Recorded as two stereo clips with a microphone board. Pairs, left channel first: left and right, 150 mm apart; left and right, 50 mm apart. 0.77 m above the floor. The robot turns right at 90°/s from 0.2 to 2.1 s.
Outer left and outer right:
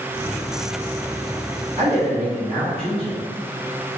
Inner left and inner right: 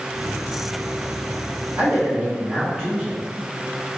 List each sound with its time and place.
1.8 s a man speaking: 55° right (ahead or behind), 1.6 m; by 3.2 s 40° right (ahead or behind), 1.6 m